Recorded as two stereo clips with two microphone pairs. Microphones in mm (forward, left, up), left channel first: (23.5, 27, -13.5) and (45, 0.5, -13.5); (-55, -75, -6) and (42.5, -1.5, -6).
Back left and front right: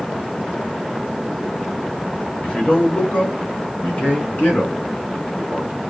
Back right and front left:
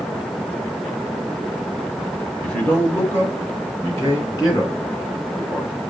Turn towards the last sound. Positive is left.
turn(degrees=165)